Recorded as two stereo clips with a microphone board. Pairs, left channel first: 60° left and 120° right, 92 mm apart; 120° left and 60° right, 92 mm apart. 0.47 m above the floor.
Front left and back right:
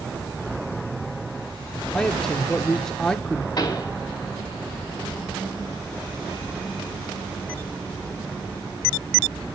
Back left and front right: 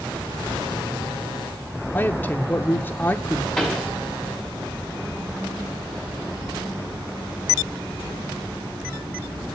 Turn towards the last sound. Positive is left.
turn(degrees=30)